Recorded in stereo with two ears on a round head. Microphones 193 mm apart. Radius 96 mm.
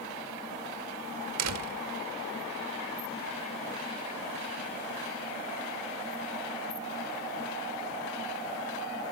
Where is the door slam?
85° right, 1.5 m.